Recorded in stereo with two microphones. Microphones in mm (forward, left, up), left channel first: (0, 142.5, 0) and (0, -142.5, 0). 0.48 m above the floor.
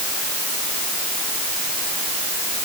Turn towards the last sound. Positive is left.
No sound to turn to.